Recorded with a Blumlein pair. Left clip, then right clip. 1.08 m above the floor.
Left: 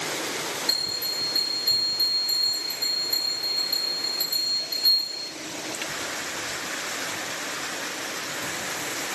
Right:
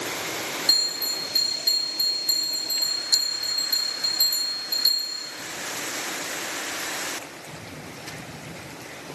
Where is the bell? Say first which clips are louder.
Right 5 dB; 20° right, 2 m.